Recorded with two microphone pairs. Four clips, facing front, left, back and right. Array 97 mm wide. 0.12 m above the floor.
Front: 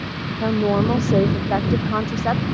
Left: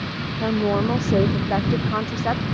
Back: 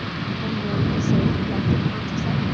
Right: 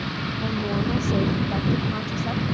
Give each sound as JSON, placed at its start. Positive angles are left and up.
{"t": 0.4, "sound": "a woman speaking", "azimuth_deg": 35}